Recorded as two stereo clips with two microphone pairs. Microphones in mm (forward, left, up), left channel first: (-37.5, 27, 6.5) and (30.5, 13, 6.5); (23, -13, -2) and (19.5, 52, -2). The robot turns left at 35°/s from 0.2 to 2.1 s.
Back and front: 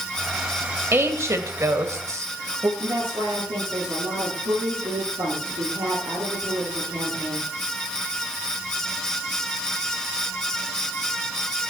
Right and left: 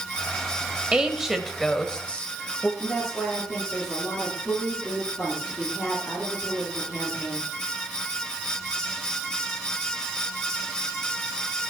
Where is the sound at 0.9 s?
20° left, 1.5 m; by 2.7 s 20° right, 1.5 m.